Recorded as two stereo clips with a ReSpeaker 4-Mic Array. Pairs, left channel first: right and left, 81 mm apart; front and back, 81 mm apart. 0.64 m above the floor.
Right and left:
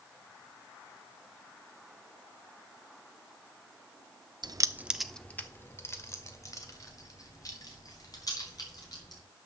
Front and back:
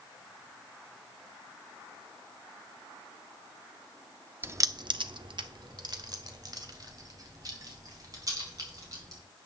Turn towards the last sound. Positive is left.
turn(degrees=-130)